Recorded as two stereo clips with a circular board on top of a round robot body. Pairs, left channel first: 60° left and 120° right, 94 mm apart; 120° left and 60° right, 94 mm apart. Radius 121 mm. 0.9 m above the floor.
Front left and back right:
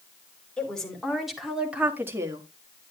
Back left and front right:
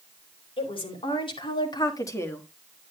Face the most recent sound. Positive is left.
turn(degrees=-170)